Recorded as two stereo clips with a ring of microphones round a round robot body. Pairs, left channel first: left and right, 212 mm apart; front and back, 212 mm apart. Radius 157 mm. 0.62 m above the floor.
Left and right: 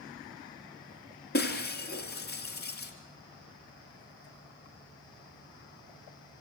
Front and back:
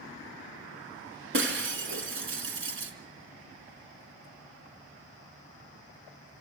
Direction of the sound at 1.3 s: 150° left.